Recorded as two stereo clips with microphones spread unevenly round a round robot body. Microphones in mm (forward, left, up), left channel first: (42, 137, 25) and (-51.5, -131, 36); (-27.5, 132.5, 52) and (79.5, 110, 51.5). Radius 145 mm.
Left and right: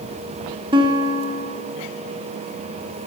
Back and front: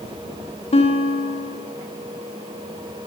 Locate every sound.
0.7 s a guitar: straight behind, 1.0 m